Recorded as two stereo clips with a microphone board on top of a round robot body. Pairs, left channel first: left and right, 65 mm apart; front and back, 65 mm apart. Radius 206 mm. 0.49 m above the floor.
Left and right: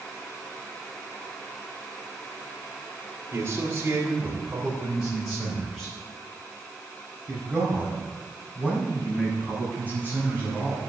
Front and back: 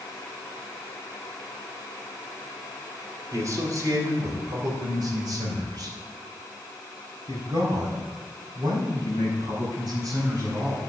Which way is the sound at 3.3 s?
150° right.